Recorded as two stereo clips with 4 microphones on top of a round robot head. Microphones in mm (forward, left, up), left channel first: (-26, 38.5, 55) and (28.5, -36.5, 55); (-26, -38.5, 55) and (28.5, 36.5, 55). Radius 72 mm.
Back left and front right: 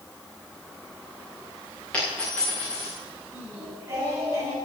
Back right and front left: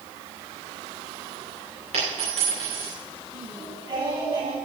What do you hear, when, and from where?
1.9 s a dropped coin: 50° left, 8 m
3.3 s singing: 10° left, 8 m